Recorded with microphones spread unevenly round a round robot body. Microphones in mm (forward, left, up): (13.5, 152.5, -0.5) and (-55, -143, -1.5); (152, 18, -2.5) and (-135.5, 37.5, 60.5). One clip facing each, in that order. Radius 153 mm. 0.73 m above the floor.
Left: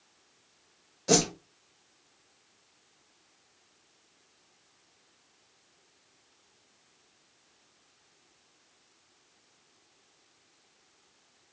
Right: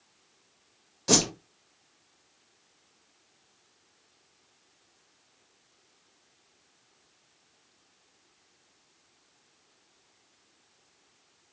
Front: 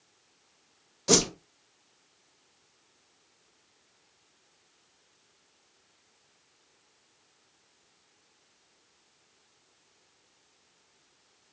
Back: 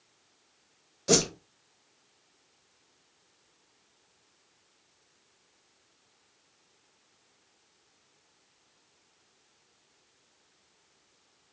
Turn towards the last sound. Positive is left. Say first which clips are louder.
# left 1 dB, front 1 dB
turn(degrees=-50)